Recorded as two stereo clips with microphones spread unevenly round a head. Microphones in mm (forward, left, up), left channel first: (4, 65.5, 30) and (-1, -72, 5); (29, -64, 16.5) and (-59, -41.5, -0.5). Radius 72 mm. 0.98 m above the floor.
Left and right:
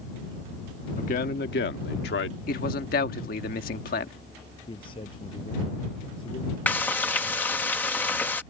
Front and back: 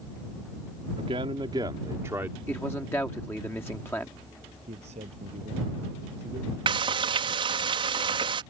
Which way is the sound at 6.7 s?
170° left.